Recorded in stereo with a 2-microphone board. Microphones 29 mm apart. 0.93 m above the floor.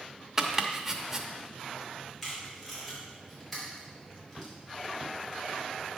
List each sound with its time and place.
0.4 s chopping: 15° right (ahead or behind), 0.7 m
2.2 s tape being pulled: 10° left (ahead or behind), 4 m